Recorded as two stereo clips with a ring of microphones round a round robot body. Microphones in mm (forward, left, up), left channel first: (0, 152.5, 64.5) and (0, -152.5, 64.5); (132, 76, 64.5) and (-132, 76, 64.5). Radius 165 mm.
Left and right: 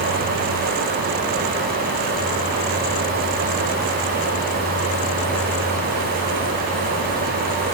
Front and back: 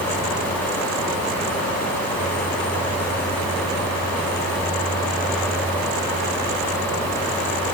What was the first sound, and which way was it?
Only background noise.